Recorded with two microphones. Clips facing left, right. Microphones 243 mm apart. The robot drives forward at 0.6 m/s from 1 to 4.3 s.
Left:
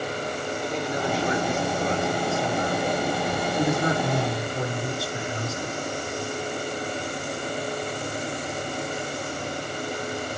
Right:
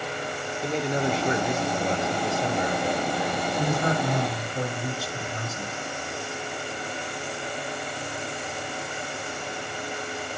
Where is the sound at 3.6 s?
25° left (ahead or behind), 6 m.